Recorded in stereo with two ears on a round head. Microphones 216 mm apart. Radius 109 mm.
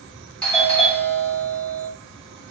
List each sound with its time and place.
0.4 s a doorbell: 5° left (ahead or behind), 2.5 m